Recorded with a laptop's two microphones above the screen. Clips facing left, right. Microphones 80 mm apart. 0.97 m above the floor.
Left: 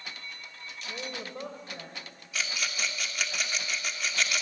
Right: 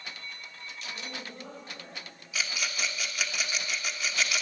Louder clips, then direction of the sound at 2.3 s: Even; centre (ahead or behind).